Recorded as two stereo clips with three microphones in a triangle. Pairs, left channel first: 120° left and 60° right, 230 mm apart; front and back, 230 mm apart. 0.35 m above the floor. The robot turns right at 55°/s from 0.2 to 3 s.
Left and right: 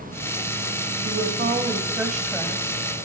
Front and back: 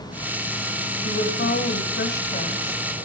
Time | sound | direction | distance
1.0 | a woman speaking | 30° right | 1.7 m